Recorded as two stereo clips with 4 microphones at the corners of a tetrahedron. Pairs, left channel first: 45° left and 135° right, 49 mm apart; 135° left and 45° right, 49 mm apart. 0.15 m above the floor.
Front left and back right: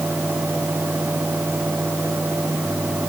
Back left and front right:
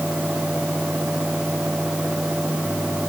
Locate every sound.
Only background noise.